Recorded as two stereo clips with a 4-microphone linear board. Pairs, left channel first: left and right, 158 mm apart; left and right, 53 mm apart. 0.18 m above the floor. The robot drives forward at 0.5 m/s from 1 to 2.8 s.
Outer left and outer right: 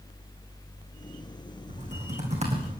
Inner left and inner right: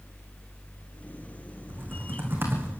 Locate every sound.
1.7 s typing on a keyboard: 45° right (ahead or behind), 6 m